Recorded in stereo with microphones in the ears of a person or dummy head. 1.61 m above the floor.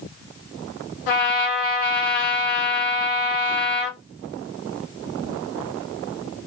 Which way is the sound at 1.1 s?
55° left (ahead or behind).